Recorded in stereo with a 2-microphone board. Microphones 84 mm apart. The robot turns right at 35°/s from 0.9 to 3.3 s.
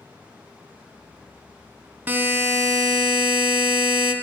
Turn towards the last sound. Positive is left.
turn(degrees=-115)